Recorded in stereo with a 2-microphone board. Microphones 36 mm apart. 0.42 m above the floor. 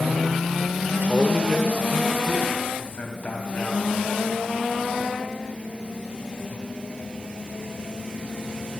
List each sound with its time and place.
1.1 s a man speaking: 30° left (ahead or behind), 1.3 m; by 3.8 s 45° left (ahead or behind), 3.5 m